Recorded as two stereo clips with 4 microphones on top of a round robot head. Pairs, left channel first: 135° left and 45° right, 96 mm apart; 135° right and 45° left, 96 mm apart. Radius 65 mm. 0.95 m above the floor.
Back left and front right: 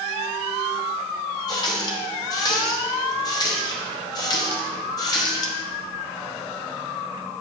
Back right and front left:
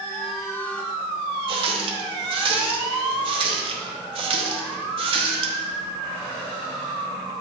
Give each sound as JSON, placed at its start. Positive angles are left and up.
{"t": 1.5, "sound": "a running tap", "azimuth_deg": 80, "distance_m": 0.8}